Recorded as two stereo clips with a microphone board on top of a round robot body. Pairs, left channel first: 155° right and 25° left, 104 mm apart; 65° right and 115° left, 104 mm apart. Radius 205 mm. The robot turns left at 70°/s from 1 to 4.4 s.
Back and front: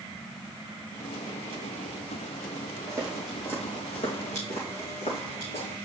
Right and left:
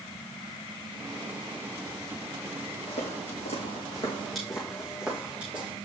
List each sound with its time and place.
2.9 s footsteps: 35° right, 2 m; by 5.8 s 170° right, 3 m